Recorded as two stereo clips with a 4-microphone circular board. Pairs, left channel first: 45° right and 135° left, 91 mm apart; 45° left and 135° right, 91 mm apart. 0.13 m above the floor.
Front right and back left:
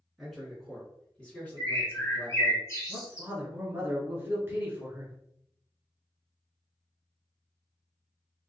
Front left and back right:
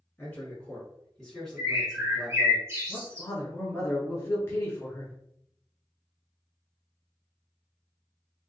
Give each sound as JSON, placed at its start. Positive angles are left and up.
{"t": 0.2, "sound": "a man speaking", "azimuth_deg": 50, "distance_m": 1.6}
{"t": 1.6, "sound": "a bird", "azimuth_deg": -85, "distance_m": 1.8}
{"t": 2.9, "sound": "a man speaking", "azimuth_deg": 90, "distance_m": 1.2}